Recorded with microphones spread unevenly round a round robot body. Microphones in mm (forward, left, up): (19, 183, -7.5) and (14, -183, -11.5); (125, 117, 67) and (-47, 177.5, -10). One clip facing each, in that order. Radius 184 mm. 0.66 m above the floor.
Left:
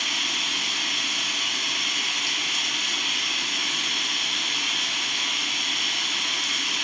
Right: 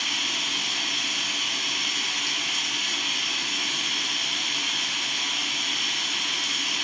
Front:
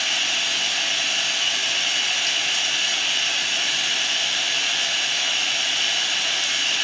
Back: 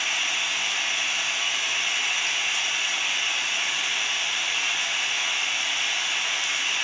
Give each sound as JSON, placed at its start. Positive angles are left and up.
{"t": 0.0, "sound": "running water", "azimuth_deg": 0, "distance_m": 0.9}